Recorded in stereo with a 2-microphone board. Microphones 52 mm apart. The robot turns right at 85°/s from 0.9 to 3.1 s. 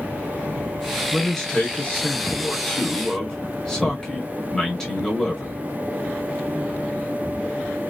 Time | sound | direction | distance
1.1 | a man speaking | 10° right | 1.4 m